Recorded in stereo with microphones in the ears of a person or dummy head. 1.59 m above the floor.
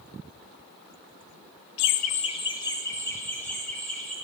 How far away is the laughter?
About 0.6 m.